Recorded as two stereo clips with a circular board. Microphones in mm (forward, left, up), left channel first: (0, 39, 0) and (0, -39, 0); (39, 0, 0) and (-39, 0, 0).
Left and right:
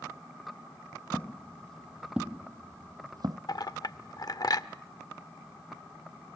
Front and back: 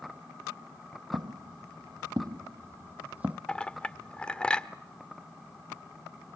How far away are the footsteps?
About 1.3 m.